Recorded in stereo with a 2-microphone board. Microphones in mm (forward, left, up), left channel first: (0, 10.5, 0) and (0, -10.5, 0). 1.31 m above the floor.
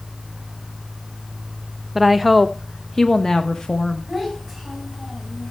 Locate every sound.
1.9 s a woman speaking: 10° right (ahead or behind), 1.0 m; by 4.1 s 40° left (ahead or behind), 1.5 m
4.1 s a child speaking: 5° left (ahead or behind), 8.5 m